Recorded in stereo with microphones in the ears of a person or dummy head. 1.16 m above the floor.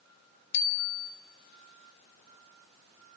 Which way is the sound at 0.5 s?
65° left (ahead or behind).